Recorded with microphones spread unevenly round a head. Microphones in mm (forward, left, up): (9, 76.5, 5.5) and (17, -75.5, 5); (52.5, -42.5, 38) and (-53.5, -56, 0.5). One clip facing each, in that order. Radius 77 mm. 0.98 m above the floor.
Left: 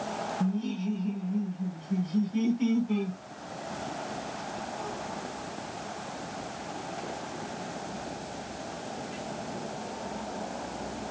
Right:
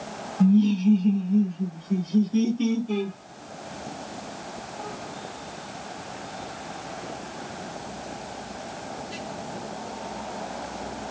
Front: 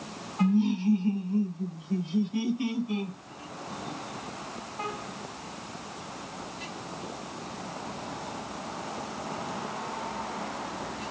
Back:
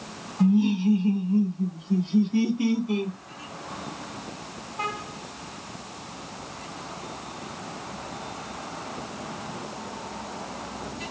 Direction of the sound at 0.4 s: 100° right.